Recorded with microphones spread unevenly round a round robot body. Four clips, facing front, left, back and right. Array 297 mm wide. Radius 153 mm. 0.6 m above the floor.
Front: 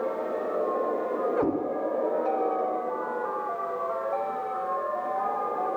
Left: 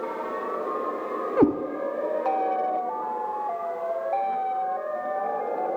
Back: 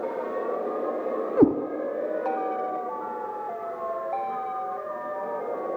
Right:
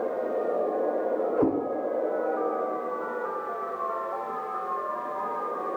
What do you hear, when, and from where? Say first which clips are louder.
1.4 s a cat meowing: left 6 dB, back 10 dB; 155° left, 0.5 m